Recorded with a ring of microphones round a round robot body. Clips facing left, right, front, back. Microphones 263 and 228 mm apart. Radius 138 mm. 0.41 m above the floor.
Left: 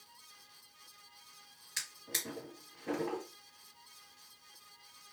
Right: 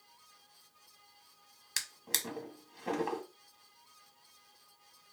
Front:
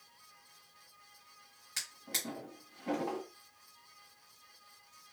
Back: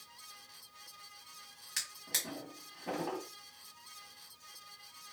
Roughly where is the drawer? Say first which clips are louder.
Right 1 dB, front 3 dB; right.